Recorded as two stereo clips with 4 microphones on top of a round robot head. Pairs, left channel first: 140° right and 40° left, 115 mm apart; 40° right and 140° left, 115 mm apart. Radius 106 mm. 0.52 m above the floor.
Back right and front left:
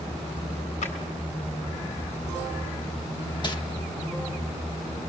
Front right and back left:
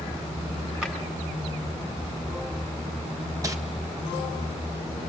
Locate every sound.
0.8 s a drawer: 140° right, 4 m
3.4 s crumpling: 170° right, 1.6 m